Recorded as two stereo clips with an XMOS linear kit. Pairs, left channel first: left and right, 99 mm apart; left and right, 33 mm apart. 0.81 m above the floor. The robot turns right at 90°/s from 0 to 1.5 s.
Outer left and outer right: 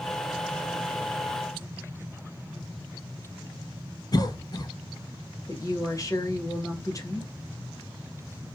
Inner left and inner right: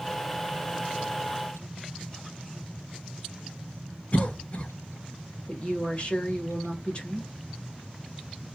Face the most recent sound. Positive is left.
turn(degrees=35)  # may be behind; listen again after turning